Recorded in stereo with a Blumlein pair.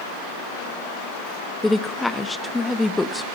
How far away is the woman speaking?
About 1.0 m.